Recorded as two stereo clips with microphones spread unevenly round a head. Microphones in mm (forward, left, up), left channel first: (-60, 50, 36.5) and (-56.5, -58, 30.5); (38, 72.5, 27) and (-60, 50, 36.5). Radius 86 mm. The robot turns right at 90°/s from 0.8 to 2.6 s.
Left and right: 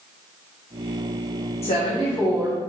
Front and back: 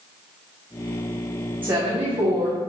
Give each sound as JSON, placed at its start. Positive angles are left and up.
{"t": 1.6, "sound": "a woman speaking", "azimuth_deg": 120, "distance_m": 0.8}